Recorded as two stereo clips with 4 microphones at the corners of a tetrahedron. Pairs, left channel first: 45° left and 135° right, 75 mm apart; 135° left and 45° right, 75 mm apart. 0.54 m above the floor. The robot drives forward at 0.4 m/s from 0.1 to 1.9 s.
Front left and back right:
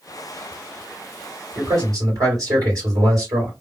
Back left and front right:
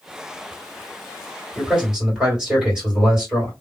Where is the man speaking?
120° right, 2 m; by 3.5 s 125° right, 2 m.